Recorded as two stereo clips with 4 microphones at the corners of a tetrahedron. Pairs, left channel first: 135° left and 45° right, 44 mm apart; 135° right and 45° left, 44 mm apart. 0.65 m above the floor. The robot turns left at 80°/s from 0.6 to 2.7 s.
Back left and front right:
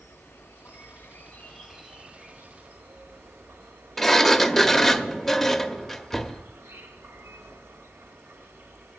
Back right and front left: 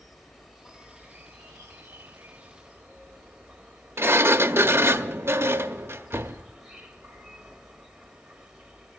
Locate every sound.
0.0 s an insect: 135° left, 1.4 m; by 9.0 s 30° right, 1.4 m
4.0 s a sliding door: 50° left, 0.6 m